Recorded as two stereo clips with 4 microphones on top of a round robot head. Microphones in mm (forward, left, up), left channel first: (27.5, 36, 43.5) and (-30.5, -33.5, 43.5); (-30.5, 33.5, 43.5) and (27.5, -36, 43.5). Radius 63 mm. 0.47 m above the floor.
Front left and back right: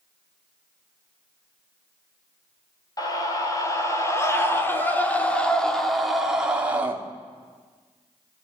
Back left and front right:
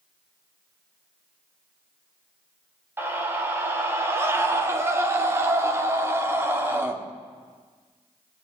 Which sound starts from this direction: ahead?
A scream, at 3.0 s.